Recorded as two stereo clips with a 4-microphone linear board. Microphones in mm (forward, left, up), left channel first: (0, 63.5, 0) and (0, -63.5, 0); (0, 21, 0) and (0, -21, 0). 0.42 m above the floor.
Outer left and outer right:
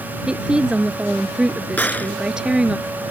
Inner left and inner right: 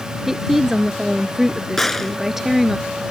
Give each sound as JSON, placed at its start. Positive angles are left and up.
{"t": 0.3, "sound": "a woman speaking", "side_deg": -5}
{"t": 1.8, "sound": "a gunshot", "side_deg": 15}